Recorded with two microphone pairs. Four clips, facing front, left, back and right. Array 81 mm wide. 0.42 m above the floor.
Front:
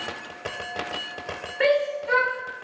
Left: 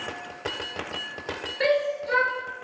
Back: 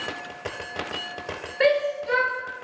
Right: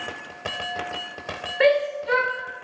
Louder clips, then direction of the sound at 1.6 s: Right 4 dB, even; 85° right.